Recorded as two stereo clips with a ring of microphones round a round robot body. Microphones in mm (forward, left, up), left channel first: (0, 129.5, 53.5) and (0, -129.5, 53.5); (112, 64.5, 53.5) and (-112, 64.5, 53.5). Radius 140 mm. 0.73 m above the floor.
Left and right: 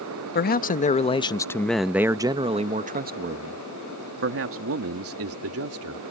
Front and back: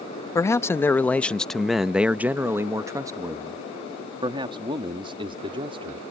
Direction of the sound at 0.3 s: 70° left.